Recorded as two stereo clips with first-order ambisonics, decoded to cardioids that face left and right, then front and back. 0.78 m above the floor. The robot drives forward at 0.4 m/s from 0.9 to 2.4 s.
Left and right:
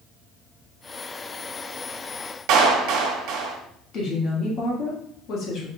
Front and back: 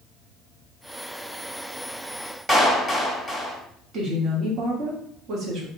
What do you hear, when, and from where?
2.5 s a clap: 90° right, 1.1 m
3.9 s a woman speaking: 135° left, 1.2 m